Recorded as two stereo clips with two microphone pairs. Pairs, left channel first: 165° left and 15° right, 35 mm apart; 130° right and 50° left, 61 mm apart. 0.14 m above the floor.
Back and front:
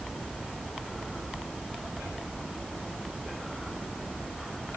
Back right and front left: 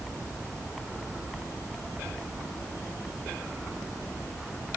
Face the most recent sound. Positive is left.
No sound to turn to.